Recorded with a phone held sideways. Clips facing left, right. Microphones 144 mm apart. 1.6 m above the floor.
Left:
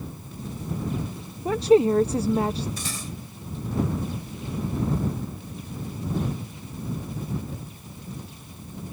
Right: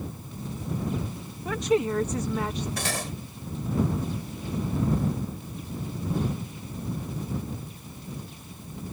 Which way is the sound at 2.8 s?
75° right (ahead or behind).